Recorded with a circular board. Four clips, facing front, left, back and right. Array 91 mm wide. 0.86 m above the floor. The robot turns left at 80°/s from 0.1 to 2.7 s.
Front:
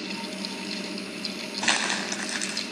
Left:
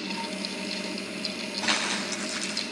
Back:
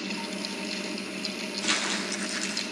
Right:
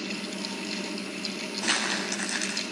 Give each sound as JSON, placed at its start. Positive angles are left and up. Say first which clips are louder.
{"t": 1.6, "sound": "crumpling", "louder": "even, front 4 dB", "azimuth_deg": 15, "distance_m": 7.0}